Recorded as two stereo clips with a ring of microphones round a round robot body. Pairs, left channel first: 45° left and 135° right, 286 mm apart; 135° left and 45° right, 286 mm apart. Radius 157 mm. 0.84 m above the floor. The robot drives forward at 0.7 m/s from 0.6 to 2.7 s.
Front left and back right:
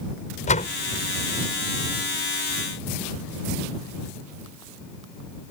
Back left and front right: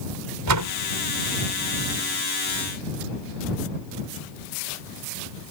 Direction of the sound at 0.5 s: 20° right.